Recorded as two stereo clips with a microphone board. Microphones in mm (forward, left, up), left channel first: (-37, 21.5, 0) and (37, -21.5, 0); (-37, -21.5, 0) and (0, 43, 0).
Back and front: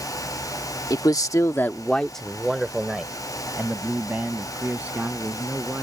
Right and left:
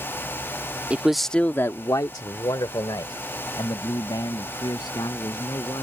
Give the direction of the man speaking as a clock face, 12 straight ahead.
8 o'clock.